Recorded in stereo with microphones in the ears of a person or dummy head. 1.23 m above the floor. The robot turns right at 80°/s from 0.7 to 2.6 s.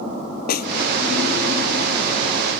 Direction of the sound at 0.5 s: 60° left (ahead or behind).